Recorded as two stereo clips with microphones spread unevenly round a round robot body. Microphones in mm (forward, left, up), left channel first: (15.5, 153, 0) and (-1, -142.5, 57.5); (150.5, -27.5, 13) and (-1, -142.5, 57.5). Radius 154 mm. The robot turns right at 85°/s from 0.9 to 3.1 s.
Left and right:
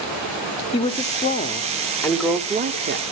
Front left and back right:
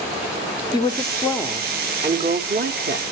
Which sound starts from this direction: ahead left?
A woman speaking, at 0.7 s.